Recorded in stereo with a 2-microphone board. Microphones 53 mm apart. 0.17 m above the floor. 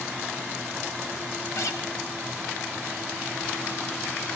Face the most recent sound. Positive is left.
turn(degrees=65)  # may be behind; listen again after turning